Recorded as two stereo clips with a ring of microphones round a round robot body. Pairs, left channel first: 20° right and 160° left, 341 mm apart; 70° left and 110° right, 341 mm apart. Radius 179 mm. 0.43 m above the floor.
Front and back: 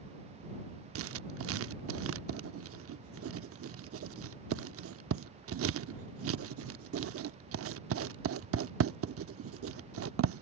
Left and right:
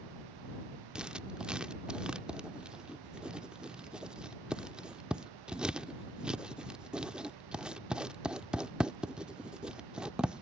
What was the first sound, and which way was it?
Writing, 160° left.